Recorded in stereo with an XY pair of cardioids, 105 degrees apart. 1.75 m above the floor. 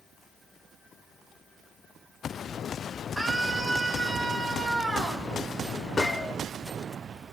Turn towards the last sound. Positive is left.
turn(degrees=30)